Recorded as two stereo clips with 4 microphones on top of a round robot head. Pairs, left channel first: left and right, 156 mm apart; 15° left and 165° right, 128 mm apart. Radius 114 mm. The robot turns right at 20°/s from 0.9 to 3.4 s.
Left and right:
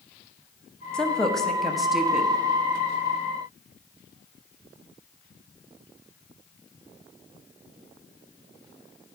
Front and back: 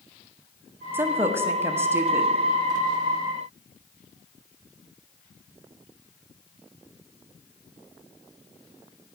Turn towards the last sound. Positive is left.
turn(degrees=-145)